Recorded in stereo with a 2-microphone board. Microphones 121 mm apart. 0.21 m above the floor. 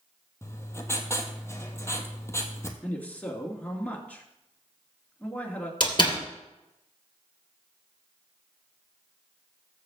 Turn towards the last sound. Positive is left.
turn(degrees=40)  # may be behind; listen again after turning